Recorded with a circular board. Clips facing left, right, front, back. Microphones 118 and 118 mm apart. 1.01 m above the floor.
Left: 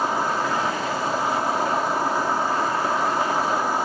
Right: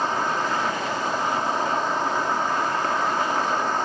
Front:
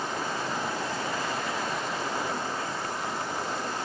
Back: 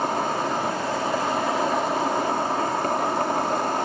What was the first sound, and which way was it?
An insect, 170° left.